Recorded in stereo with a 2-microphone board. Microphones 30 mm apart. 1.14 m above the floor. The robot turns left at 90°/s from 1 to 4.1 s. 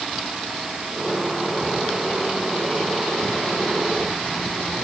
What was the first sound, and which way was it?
Only background noise.